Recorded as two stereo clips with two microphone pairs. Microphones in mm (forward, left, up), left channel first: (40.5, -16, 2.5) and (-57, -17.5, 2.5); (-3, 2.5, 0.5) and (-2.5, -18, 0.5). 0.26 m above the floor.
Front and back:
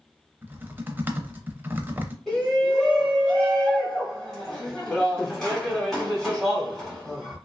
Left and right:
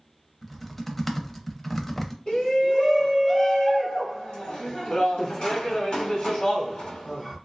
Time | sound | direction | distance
0.4 | typing on a keyboard | 165° left | 0.5 m
2.3 | a shout | 85° left | 1.2 m